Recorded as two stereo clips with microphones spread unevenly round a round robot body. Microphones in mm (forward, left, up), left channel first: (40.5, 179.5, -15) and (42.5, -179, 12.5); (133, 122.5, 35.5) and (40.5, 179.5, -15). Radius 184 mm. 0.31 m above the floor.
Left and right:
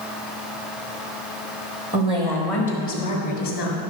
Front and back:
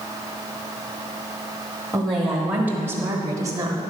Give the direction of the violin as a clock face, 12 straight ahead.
No violin in this recording.